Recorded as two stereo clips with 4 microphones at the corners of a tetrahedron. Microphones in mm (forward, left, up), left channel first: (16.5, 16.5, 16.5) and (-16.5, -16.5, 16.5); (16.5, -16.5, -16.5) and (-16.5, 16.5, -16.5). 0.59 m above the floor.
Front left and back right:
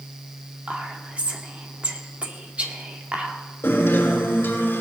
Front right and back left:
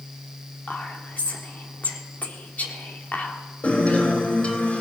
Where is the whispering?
80° right, 1.6 m.